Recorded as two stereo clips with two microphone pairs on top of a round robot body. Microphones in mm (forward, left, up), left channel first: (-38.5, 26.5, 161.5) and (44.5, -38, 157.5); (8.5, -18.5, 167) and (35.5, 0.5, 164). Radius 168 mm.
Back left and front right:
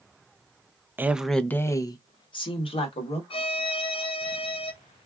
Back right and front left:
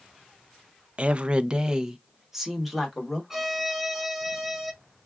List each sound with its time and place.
1.0 s a woman speaking: 20° left, 0.6 m; by 3.2 s 120° left, 1.3 m
3.3 s a violin: 115° left, 0.6 m